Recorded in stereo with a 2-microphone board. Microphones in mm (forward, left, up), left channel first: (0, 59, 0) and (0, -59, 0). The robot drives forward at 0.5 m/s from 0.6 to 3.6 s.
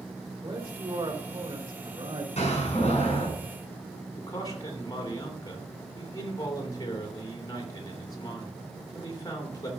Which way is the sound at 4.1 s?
35° left (ahead or behind).